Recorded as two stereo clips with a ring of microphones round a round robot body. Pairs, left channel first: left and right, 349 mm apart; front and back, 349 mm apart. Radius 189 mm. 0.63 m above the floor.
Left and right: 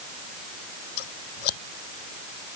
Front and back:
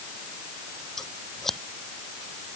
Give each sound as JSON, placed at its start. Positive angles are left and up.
{"t": 1.0, "sound": "scissors", "azimuth_deg": 90}